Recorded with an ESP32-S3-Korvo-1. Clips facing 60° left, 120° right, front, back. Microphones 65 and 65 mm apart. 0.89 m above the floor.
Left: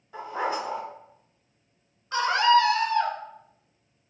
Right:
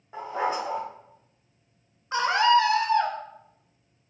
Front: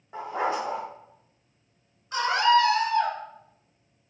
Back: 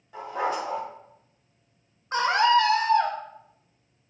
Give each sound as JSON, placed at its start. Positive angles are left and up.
{"t": 0.1, "sound": "a dog barking", "azimuth_deg": -60, "distance_m": 1.2}
{"t": 2.1, "sound": "a scream", "azimuth_deg": -175, "distance_m": 0.5}